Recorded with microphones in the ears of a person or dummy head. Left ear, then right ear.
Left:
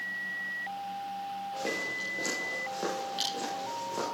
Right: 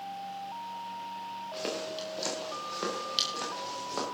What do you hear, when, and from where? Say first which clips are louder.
1.5 s footsteps: left 2 dB; 35° right (ahead or behind), 8 m; by 4.0 s 50° right (ahead or behind), 10 m